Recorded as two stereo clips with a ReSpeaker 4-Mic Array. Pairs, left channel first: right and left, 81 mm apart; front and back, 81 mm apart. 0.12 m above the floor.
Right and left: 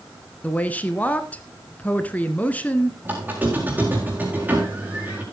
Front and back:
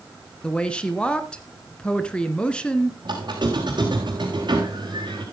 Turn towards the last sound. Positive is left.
turn(degrees=160)